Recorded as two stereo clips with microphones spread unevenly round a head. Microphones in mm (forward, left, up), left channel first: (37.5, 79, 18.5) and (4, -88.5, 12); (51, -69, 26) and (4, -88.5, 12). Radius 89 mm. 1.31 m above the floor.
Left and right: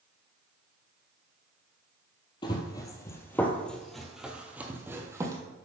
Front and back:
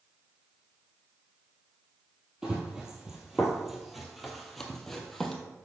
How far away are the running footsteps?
About 1.4 m.